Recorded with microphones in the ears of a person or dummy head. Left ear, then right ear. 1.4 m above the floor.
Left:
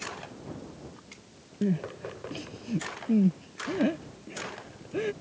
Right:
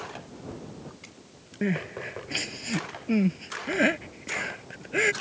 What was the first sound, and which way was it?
Crying, 50° right (ahead or behind).